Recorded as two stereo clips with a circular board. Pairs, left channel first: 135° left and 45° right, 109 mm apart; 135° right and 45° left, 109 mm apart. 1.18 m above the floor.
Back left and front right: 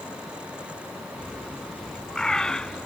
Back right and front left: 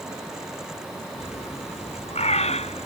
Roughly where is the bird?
Behind right.